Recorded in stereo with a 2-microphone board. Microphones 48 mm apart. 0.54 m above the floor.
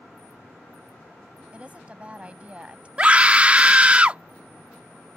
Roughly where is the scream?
Right.